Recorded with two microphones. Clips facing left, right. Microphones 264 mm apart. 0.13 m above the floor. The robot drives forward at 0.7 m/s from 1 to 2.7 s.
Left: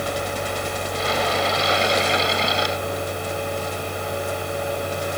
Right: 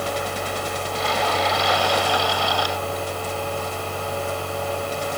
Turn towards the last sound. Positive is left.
No sound to turn to.